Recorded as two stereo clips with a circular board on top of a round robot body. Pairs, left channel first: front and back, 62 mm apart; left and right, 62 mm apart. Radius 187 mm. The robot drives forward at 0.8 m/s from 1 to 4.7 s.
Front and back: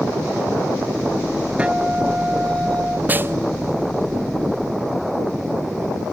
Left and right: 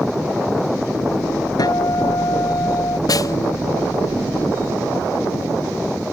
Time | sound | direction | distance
1.6 | a guitar | 110° left | ?
3.1 | a snare drum | 115° left | ?